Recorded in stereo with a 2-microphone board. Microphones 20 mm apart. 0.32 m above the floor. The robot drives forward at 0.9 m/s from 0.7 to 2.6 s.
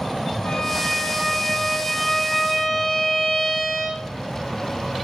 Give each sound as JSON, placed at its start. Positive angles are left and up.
{"t": 0.4, "sound": "a violin", "side_deg": 25, "distance_m": 9.0}